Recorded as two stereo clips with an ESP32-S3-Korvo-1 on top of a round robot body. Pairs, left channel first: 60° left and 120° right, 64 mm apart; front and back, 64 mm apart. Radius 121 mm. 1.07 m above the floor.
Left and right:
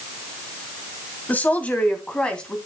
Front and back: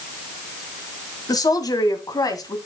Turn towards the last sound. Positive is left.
turn(degrees=-15)